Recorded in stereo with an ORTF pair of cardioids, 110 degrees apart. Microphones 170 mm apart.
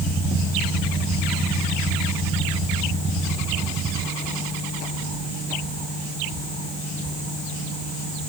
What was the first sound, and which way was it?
Only background noise.